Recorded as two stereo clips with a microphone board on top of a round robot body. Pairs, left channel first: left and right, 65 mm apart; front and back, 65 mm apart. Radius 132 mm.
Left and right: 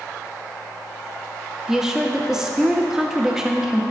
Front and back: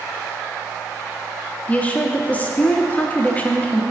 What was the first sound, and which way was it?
A woman speaking, 20° right.